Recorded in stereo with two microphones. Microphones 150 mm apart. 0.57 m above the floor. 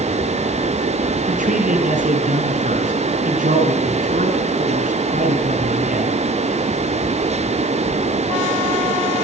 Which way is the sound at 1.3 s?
65° right (ahead or behind).